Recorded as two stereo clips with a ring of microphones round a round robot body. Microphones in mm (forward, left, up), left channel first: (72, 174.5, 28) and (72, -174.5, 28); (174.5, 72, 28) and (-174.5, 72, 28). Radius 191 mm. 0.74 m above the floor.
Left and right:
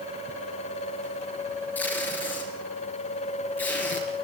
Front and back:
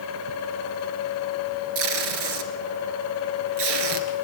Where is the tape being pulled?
175° left, 2.5 m.